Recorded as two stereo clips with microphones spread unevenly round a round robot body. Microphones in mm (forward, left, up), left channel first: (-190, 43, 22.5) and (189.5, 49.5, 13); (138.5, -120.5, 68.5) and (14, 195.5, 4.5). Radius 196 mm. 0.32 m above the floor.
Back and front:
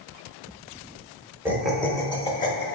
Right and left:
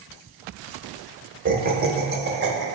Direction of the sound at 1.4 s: 80° left.